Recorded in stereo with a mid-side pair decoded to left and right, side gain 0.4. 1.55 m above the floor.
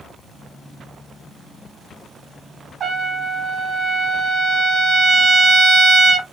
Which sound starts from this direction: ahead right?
A trumpet, at 2.8 s.